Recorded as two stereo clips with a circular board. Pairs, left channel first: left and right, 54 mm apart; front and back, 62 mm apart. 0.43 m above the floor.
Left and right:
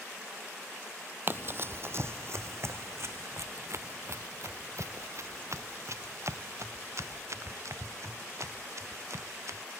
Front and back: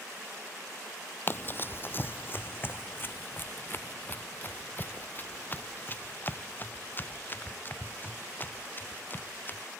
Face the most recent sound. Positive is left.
turn(degrees=-60)